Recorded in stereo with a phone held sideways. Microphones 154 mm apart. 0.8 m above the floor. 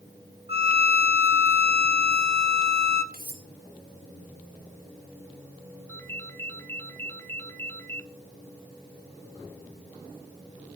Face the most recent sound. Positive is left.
turn(degrees=15)  # may be behind; listen again after turning